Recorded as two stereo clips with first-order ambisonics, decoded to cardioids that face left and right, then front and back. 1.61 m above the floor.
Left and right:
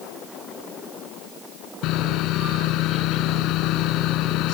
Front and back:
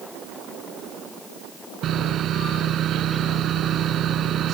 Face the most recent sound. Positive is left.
turn(degrees=125)